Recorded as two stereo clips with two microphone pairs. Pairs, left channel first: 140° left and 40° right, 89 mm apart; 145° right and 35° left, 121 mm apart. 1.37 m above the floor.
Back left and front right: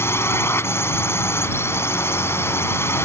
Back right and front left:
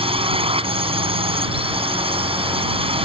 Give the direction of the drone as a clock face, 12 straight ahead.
9 o'clock.